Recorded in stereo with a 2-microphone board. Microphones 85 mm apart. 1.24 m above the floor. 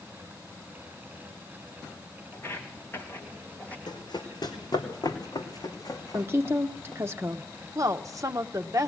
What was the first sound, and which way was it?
Footsteps, 25° left (ahead or behind).